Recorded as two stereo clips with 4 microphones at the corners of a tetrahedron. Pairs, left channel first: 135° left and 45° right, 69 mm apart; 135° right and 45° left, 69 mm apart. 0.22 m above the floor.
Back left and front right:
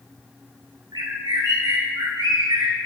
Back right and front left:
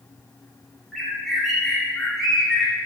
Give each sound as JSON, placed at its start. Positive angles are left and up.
{"t": 0.9, "sound": "a bird", "azimuth_deg": -45, "distance_m": 2.5}